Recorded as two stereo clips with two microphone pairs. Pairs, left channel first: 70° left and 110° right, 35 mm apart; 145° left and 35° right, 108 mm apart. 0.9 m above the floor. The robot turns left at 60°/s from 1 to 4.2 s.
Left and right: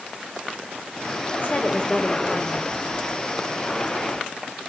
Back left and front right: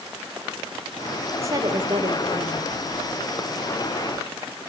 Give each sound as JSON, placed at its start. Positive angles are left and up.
{"t": 1.4, "sound": "a woman speaking", "azimuth_deg": 30, "distance_m": 3.5}